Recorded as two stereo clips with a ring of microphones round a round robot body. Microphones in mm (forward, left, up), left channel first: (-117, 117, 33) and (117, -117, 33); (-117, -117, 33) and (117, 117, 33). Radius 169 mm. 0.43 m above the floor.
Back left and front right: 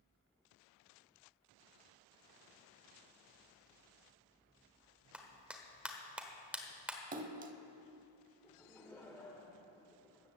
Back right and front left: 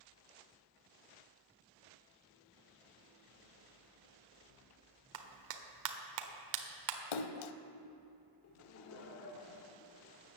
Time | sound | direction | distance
5.1 | a clap | 40° left | 1.2 m
7.1 | a splash | 115° right | 0.7 m
8.4 | laughter | 145° right | 1.1 m